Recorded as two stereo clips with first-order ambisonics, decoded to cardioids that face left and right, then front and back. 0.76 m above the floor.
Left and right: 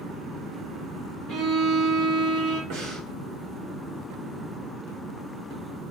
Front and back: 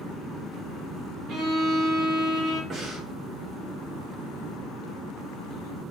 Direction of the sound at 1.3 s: 130° right.